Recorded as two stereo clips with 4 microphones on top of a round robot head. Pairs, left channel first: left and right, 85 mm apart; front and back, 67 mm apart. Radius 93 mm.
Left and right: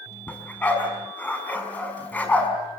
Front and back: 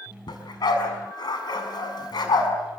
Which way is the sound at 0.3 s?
15° left.